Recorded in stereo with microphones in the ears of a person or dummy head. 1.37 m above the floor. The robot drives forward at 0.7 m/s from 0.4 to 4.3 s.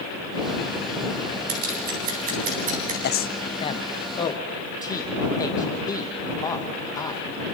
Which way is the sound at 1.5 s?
50° right (ahead or behind).